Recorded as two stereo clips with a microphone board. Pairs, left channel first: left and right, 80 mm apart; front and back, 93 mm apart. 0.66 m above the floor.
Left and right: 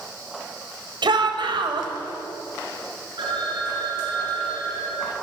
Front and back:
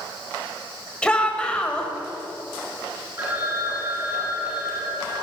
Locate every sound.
1.0 s a shout: 80° right, 3.5 m
3.2 s a phone ringing: 115° right, 7.5 m